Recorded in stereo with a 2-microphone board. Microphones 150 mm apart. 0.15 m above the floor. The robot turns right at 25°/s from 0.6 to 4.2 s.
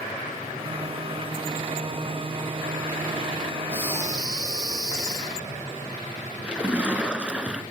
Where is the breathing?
10° right (ahead or behind), 3.5 m; by 5.6 s 25° right (ahead or behind), 3.5 m.